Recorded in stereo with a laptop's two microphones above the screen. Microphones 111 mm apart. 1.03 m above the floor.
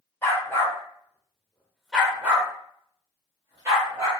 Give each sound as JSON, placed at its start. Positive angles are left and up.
{"t": 0.2, "sound": "a dog barking", "side_deg": 25, "distance_m": 1.1}